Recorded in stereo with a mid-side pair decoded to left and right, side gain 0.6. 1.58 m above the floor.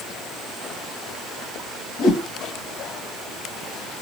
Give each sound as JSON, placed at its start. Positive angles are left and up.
{"t": 2.0, "sound": "a whoosh", "azimuth_deg": 70, "distance_m": 1.7}